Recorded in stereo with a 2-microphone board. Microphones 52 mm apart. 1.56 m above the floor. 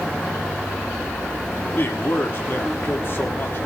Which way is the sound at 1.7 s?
45° left (ahead or behind).